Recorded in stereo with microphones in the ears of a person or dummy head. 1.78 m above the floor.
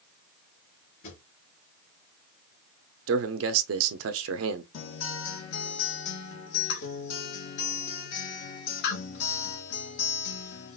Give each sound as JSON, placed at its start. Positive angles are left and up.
{"t": 1.0, "sound": "a drawer", "side_deg": 45, "distance_m": 2.5}
{"t": 3.1, "sound": "a man speaking", "side_deg": -80, "distance_m": 0.8}
{"t": 4.7, "sound": "a guitar", "side_deg": 65, "distance_m": 1.5}